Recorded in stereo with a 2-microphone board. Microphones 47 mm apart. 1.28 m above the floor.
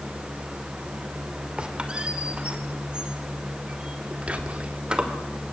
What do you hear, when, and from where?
1.6 s a squeak: 20° right (ahead or behind), 2.5 m
4.3 s whispering: 30° right (ahead or behind), 3.5 m